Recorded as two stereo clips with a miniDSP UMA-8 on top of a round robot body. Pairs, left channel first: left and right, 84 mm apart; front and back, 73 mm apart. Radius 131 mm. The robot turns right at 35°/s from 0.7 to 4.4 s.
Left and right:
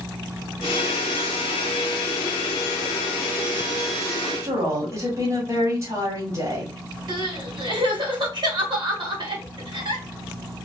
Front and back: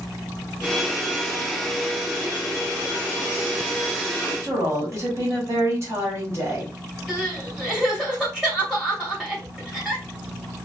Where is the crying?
105° right, 2.5 m.